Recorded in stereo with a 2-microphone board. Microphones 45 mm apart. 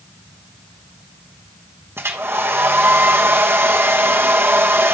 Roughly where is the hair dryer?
Right.